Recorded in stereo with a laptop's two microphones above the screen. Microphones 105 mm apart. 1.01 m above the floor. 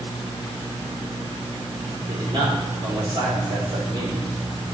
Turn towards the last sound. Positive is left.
turn(degrees=-50)  # may be behind; listen again after turning